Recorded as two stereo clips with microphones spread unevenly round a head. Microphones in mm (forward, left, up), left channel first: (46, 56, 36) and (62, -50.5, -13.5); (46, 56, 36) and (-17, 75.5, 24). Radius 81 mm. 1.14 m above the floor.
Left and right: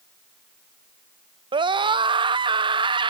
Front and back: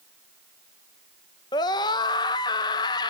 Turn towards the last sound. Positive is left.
turn(degrees=-50)